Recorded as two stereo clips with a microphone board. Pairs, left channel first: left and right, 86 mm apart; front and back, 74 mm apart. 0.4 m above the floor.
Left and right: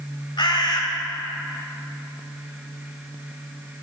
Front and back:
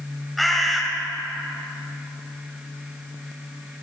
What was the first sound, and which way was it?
A bird, 90° left.